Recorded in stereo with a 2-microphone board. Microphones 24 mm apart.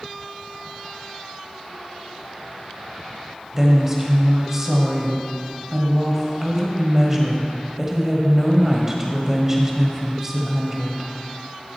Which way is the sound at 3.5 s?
20° right (ahead or behind).